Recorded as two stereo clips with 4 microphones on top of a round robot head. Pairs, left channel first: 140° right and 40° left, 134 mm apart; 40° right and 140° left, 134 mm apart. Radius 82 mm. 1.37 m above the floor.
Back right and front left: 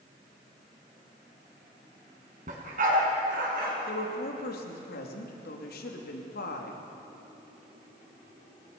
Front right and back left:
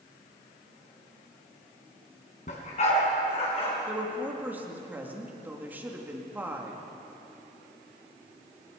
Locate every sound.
2.5 s a dog barking: straight ahead, 4 m; by 3.8 s 10° left, 5 m
3.9 s a woman speaking: 145° right, 2.5 m